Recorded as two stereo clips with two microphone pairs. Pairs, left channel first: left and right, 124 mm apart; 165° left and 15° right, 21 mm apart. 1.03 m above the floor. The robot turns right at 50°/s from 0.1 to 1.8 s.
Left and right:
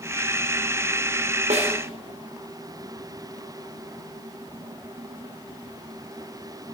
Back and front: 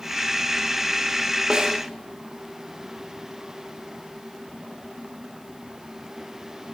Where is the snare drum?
70° right, 3.5 m; by 1.8 s 55° right, 3.5 m.